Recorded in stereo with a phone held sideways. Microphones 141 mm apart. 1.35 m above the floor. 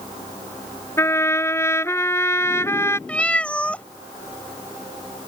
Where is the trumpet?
20° left (ahead or behind).